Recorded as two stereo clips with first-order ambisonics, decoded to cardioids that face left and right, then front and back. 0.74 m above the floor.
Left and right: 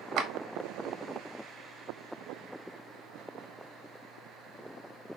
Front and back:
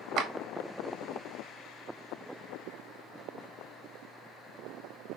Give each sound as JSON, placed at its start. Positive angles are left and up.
{"t": 0.2, "sound": "a clap", "azimuth_deg": -135, "distance_m": 0.6}